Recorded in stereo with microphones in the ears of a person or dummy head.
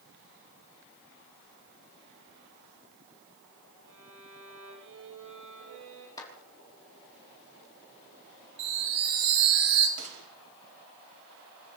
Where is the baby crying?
I don't hear a baby crying.